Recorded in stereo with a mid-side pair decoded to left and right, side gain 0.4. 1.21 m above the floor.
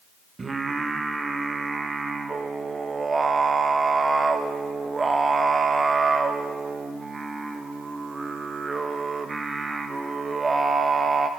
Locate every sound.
0.4 s singing: 35° right, 0.8 m